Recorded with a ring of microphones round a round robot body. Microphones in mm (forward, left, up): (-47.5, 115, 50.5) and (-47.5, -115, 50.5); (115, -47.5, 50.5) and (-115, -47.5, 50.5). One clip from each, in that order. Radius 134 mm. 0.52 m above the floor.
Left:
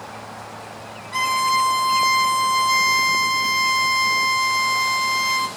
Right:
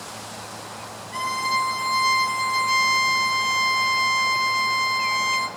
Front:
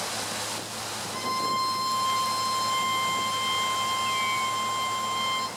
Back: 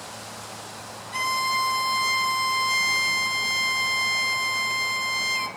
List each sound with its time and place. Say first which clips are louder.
1.1 s a violin: left 5 dB, back 4 dB; 150° left, 0.5 m